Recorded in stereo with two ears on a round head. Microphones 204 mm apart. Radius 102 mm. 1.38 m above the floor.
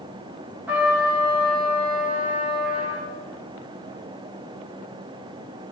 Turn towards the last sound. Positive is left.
turn(degrees=-5)  # may be behind; listen again after turning